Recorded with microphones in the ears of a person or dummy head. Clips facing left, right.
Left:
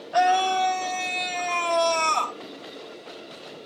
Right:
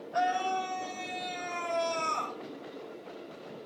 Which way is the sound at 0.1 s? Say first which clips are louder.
Left 9 dB; 75° left (ahead or behind).